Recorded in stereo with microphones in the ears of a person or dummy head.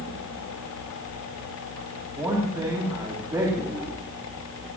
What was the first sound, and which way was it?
A man speaking, 10° right (ahead or behind).